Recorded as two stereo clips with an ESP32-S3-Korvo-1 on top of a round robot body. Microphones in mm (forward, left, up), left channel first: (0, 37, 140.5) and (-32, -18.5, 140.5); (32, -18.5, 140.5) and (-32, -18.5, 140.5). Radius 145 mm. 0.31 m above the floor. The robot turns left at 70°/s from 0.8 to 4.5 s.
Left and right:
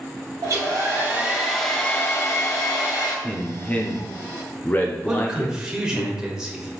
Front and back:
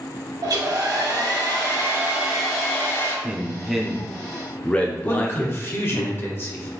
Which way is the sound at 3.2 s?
135° left.